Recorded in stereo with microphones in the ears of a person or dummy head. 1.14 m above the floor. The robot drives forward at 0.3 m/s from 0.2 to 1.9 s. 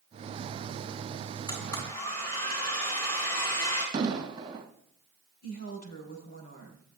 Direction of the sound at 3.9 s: 25° right (ahead or behind).